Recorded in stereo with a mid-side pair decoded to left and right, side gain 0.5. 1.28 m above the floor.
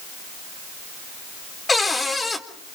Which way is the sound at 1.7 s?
25° left.